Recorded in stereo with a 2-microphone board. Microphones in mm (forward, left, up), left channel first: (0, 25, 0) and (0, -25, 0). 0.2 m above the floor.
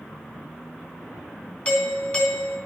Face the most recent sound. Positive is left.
turn(degrees=25)  # may be behind; listen again after turning